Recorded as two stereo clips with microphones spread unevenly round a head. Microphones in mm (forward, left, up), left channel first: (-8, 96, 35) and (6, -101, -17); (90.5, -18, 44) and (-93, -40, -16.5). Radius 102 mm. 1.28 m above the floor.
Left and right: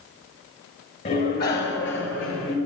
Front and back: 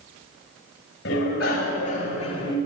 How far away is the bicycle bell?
About 4.5 m.